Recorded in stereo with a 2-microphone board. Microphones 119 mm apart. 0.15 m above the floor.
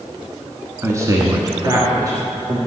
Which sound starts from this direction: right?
A man speaking, at 0.8 s.